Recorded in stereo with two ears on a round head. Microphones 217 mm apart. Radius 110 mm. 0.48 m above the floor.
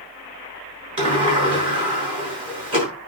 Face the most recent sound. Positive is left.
turn(degrees=-25)  # may be behind; listen again after turning